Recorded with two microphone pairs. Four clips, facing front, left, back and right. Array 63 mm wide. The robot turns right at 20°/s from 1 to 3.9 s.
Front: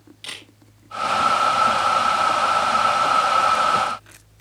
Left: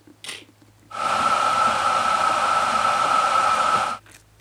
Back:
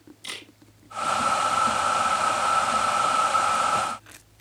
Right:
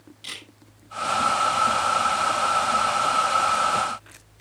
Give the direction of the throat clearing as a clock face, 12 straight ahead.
No throat clearing in this recording.